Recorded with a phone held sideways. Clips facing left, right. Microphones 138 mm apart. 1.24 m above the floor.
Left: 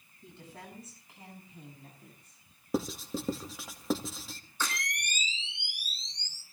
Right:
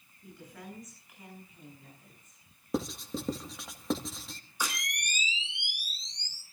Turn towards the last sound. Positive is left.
turn(degrees=-15)  # may be behind; listen again after turning